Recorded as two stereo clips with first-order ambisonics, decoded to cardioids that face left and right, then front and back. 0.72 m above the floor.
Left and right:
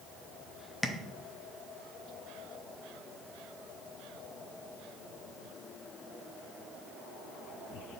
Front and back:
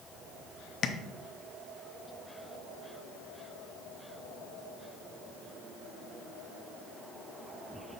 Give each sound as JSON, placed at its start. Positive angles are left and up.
{"t": 0.8, "sound": "tapping", "azimuth_deg": 15, "distance_m": 0.5}